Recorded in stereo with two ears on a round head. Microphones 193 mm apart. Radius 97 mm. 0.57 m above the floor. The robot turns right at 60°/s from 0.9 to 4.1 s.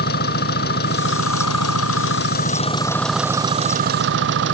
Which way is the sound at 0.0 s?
45° left.